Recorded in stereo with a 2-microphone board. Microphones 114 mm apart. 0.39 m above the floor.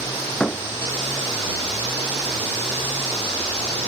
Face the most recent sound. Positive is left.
turn(degrees=5)  # may be behind; listen again after turning